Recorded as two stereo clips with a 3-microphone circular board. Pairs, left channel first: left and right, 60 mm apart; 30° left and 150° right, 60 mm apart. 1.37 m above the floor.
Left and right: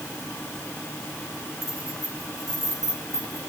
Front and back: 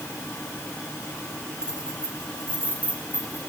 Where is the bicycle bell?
No bicycle bell in this recording.